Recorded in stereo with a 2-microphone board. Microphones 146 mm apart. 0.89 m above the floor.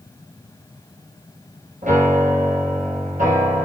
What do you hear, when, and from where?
1.8 s a piano: 70° right (ahead or behind), 4 m